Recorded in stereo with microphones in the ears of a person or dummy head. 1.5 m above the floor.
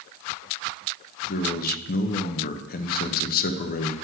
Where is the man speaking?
55° left (ahead or behind), 1.2 m.